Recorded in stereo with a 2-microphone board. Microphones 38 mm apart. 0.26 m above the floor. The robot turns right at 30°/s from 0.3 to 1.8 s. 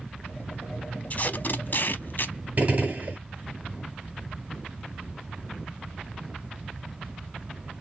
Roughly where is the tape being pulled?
Left.